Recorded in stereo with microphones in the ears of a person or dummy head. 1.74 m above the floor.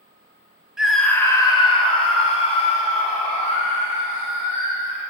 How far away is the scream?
About 0.6 m.